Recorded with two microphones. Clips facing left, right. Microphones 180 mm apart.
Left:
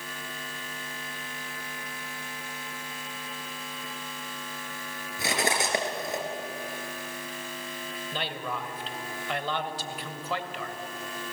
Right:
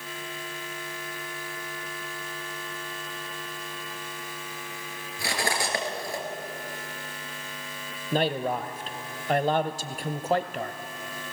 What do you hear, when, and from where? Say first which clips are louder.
5.2 s cutlery clinking: left 1 dB; 20° left (ahead or behind), 3.5 m
8.1 s a man speaking: right 10 dB; 45° right (ahead or behind), 1.3 m